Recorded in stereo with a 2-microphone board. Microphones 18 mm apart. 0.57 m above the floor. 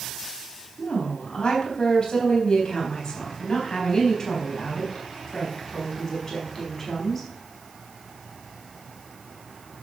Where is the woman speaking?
50° left (ahead or behind), 4 m; by 7.3 s 10° left (ahead or behind), 5.5 m.